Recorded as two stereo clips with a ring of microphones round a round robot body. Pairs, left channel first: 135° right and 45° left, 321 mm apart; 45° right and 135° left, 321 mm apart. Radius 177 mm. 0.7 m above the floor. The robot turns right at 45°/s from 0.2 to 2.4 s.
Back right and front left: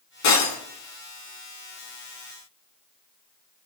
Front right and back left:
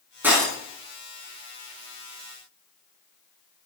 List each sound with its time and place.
0.2 s breaking glass: 140° right, 4.5 m; by 0.6 s 125° right, 4.5 m